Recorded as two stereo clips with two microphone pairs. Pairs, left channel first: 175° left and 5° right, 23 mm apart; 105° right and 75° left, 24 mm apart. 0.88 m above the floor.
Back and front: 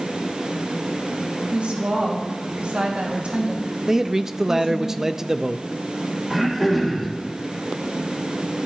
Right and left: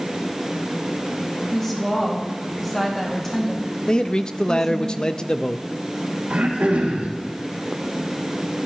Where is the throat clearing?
80° left, 3.5 m.